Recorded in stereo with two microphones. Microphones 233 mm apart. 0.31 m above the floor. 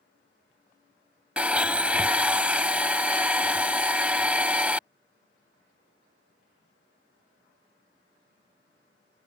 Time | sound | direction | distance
1.4 | a blender | 5° right (ahead or behind) | ?